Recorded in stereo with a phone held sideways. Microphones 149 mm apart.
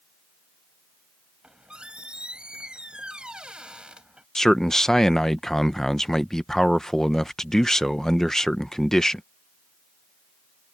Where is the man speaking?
5° left (ahead or behind).